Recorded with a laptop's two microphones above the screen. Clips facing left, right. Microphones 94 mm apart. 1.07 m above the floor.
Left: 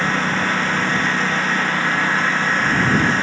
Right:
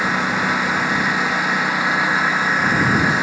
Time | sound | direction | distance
0.0 | a lawn mower | 10° right (ahead or behind) | ?